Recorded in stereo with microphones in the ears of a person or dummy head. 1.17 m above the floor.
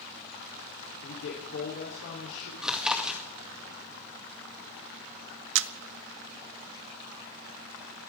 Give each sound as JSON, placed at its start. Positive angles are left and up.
{"t": 1.0, "sound": "a man speaking", "side_deg": 70, "distance_m": 3.0}
{"t": 2.6, "sound": "chewing", "side_deg": 0, "distance_m": 2.0}
{"t": 5.5, "sound": "a camera shutter", "side_deg": -65, "distance_m": 0.5}